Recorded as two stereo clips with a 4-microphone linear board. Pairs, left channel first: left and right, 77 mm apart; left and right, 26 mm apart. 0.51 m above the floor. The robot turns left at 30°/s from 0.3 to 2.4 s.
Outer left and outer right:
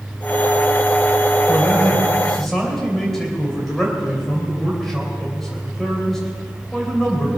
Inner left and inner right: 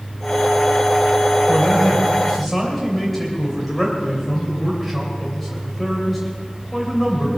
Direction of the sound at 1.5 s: 30° left (ahead or behind).